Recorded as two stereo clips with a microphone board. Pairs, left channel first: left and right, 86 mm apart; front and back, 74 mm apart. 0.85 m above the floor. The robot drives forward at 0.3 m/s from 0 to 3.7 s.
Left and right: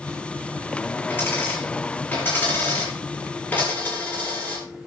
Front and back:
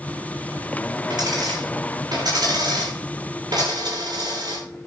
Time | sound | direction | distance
1.1 | a dropped coin | 155° left | 9.5 m